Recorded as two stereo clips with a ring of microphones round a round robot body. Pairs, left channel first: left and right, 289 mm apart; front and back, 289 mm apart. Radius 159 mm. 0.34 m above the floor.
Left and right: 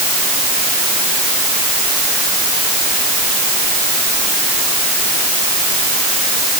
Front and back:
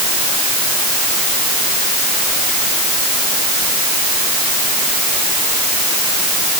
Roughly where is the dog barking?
I don't hear a dog barking.